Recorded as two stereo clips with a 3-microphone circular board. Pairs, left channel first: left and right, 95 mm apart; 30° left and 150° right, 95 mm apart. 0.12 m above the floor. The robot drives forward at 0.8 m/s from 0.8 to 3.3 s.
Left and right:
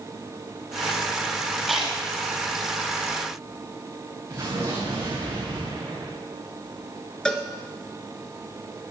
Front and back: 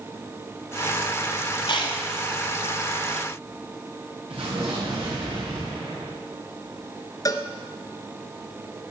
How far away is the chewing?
About 3 m.